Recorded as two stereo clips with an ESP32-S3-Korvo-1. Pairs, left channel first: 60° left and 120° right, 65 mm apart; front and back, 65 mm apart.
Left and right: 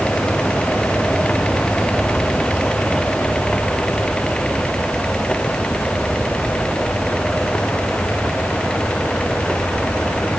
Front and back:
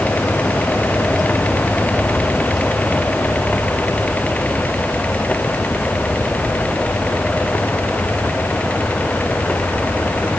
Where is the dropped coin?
No dropped coin in this recording.